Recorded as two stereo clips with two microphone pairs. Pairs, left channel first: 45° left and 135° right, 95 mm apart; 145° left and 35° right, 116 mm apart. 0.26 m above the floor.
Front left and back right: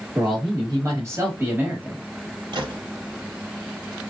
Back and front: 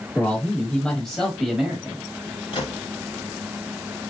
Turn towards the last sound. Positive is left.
turn(degrees=-160)